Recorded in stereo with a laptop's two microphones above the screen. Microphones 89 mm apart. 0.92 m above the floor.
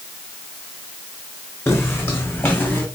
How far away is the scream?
No scream in this recording.